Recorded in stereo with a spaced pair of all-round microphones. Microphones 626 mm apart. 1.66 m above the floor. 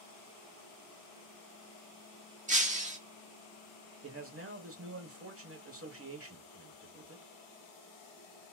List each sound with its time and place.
2.5 s breaking glass: 10° right (ahead or behind), 0.9 m
4.0 s a man speaking: 20° right (ahead or behind), 1.0 m